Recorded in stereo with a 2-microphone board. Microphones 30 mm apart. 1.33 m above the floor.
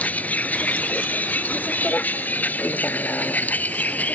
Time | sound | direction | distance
0.0 | a vehicle | 65° left (ahead or behind) | ?